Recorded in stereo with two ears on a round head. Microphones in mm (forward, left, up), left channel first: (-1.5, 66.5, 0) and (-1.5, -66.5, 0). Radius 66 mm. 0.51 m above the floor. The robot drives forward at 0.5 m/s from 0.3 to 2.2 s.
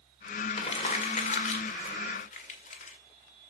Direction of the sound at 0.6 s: 45° left (ahead or behind).